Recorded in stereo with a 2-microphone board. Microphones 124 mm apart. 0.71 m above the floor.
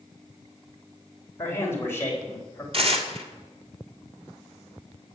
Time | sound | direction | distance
1.4 | a man speaking | 20° left (ahead or behind) | 3.5 m
2.7 | tearing paper | 50° right (ahead or behind) | 1.7 m